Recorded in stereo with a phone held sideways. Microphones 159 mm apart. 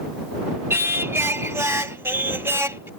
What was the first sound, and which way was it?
Singing, 15° right (ahead or behind).